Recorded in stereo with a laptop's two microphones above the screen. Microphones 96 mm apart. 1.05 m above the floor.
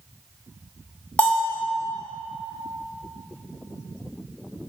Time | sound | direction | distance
1.2 | a bell | 15° left (ahead or behind) | 1.5 m